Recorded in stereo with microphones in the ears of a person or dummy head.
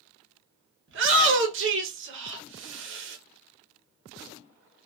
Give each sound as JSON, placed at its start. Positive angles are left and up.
{"t": 0.9, "sound": "a shout", "side_deg": -55, "distance_m": 0.7}